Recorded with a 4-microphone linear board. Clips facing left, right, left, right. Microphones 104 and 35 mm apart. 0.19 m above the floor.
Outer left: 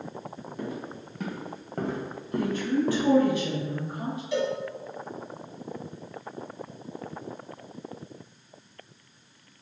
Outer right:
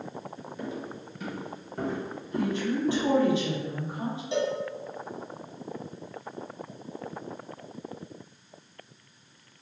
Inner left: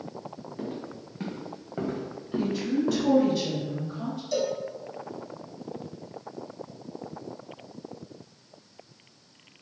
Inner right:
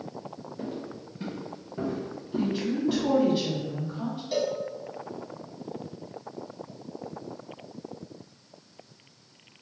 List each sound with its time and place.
0.6 s footsteps: 45° left (ahead or behind), 2.0 m; by 3.4 s 75° left (ahead or behind), 0.7 m
2.4 s a woman speaking: 20° right (ahead or behind), 1.3 m
4.3 s a cowbell: 25° right (ahead or behind), 0.6 m